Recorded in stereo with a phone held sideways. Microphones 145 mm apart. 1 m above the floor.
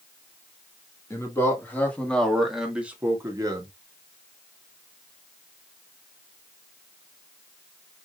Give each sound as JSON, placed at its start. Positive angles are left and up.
{"t": 1.1, "sound": "a man speaking", "side_deg": 20, "distance_m": 2.0}